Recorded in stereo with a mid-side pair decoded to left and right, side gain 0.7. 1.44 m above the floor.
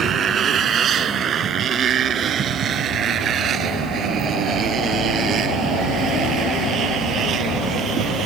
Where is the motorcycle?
35° right; by 8.2 s 40° right.